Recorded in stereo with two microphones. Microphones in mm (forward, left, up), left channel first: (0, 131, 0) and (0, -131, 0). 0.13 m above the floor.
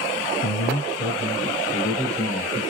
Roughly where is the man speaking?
Left.